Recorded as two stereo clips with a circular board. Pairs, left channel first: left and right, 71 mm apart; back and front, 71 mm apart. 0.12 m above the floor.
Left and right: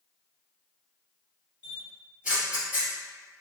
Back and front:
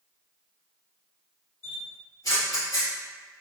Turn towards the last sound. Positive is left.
turn(degrees=-160)